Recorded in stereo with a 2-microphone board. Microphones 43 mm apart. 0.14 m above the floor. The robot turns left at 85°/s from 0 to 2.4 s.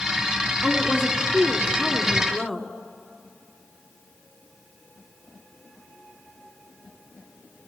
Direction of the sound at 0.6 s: 15° right (ahead or behind).